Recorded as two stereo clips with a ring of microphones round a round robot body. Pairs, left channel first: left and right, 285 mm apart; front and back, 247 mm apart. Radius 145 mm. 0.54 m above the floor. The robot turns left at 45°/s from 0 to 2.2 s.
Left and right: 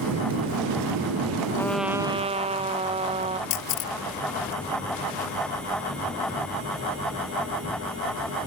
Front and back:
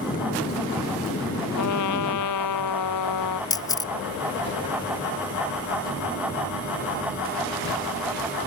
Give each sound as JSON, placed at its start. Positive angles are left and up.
{"t": 1.6, "sound": "a trumpet", "azimuth_deg": 10}
{"t": 3.5, "sound": "a camera shutter", "azimuth_deg": 75}